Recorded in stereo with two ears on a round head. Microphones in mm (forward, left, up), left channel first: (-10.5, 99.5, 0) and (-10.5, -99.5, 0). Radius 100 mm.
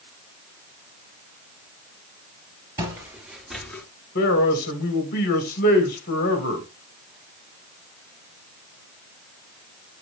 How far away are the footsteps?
About 1.6 m.